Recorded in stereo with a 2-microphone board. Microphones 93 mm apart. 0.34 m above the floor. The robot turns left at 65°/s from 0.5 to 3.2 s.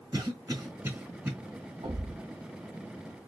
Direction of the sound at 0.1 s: 40° right (ahead or behind).